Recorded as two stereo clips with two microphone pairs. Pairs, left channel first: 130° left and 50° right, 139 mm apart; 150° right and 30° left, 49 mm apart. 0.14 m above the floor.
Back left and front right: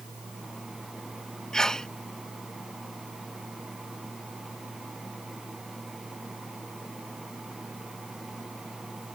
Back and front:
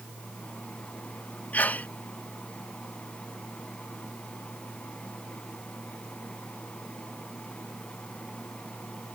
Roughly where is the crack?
I don't hear a crack.